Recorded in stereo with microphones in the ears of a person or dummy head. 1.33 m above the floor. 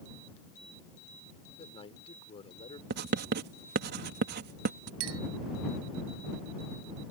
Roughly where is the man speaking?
Left.